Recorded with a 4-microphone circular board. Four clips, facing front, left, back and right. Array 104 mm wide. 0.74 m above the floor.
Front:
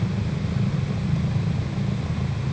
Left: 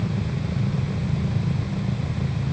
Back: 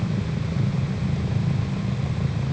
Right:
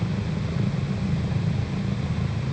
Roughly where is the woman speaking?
No woman speaking in this recording.